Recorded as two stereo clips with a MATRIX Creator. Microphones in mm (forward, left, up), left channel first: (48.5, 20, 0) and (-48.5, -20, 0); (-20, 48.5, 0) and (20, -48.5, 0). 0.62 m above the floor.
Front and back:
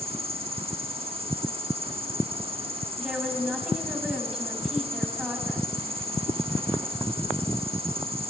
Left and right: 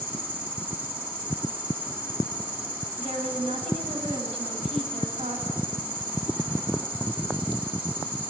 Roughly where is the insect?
Behind right.